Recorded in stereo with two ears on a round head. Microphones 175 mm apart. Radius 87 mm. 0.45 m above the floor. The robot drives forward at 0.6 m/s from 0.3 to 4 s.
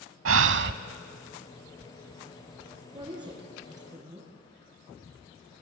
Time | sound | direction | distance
0.2 | breathing | 75° right (ahead or behind) | 0.7 m
2.9 | a woman speaking | 25° right (ahead or behind) | 6 m